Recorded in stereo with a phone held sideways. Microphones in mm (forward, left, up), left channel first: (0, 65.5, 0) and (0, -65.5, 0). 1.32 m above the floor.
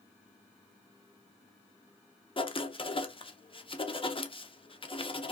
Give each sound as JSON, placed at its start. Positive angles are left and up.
{"t": 2.4, "sound": "writing", "side_deg": 40, "distance_m": 0.6}